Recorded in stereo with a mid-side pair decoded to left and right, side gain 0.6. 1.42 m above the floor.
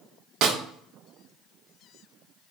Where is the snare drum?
55° right, 0.7 m.